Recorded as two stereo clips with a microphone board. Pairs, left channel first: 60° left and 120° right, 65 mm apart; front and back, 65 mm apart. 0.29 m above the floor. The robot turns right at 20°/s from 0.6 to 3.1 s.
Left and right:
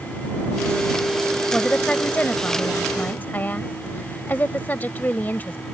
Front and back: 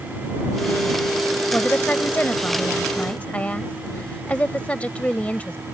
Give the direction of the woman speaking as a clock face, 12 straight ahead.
12 o'clock.